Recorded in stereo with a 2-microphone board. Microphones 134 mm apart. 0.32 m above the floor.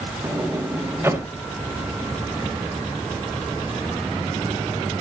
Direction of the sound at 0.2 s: 20° right (ahead or behind).